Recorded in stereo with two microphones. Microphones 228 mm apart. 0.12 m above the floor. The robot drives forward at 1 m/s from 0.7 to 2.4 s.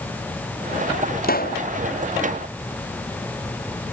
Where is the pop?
45° left (ahead or behind).